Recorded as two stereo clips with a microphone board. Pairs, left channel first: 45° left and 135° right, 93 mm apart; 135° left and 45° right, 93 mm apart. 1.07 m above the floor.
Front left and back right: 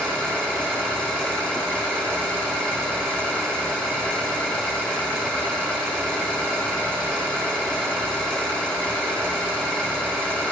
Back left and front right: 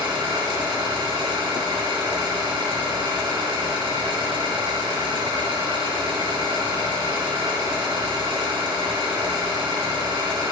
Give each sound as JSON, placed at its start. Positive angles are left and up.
{"t": 0.0, "sound": "an engine running", "azimuth_deg": -35, "distance_m": 4.5}